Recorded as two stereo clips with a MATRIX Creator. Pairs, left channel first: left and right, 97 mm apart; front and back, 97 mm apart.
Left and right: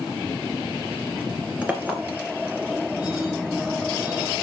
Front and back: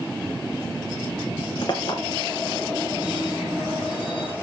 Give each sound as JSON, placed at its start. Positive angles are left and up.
{"t": 1.6, "sound": "a clink", "azimuth_deg": -20, "distance_m": 1.7}